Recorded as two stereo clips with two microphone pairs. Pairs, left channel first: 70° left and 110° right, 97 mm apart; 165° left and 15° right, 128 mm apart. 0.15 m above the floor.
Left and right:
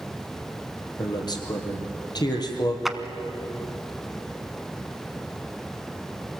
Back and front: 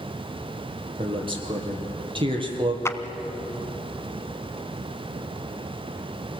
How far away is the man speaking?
About 3 m.